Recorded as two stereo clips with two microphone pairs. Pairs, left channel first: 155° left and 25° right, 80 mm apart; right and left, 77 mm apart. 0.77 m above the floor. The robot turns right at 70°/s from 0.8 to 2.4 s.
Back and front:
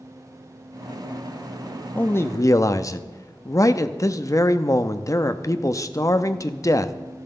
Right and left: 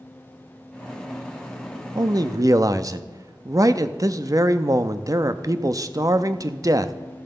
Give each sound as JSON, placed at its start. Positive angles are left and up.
{"t": 1.9, "sound": "a man speaking", "azimuth_deg": 85, "distance_m": 0.7}